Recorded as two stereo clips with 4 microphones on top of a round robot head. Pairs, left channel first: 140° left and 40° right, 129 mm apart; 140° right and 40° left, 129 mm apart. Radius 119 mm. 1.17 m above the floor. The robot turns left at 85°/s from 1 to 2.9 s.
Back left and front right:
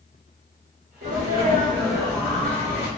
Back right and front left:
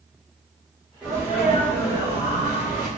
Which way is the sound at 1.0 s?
45° right.